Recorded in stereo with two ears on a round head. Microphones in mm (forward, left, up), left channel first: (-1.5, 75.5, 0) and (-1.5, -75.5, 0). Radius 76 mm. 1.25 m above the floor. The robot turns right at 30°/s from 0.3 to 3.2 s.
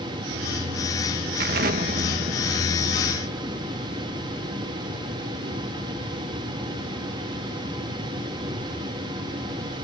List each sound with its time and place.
1.4 s an explosion: 65° right; by 5.2 s 10° right